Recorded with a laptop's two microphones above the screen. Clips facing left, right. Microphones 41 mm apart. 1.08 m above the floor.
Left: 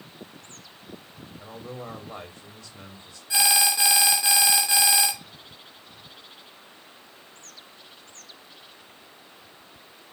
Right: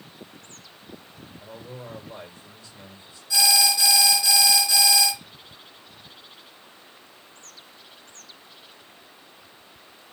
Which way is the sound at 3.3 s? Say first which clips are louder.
Right 2 dB; 30° left (ahead or behind).